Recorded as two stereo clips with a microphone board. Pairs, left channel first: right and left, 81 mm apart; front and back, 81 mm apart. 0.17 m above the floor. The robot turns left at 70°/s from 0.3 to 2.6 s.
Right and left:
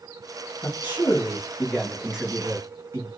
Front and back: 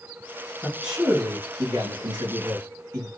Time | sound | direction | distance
0.6 | a man speaking | 80° right | 2.5 m